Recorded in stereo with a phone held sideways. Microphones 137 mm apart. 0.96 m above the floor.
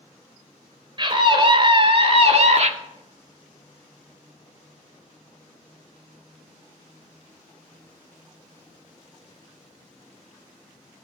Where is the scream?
35° right (ahead or behind), 3 m; by 2.7 s 55° right (ahead or behind), 1.5 m.